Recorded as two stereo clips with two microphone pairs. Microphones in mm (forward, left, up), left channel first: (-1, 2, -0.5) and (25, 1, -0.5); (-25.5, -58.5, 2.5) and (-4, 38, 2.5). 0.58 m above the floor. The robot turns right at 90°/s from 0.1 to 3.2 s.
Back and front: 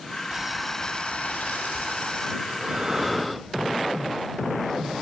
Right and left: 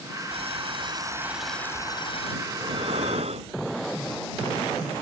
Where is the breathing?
20° left; by 3.9 s 90° left.